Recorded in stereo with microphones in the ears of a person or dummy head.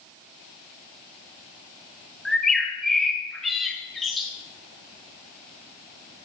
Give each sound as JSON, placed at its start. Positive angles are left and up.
{"t": 2.2, "sound": "a bird", "side_deg": 0, "distance_m": 0.9}